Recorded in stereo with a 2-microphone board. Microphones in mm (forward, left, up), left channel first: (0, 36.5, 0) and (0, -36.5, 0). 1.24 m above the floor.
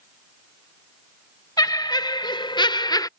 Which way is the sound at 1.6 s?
60° left (ahead or behind).